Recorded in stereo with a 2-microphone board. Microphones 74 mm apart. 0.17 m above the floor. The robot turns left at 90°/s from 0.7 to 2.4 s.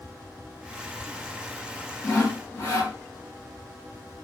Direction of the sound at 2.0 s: 155° left.